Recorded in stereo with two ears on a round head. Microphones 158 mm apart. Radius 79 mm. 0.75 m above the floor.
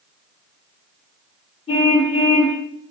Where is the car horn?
35° left (ahead or behind), 7.5 m.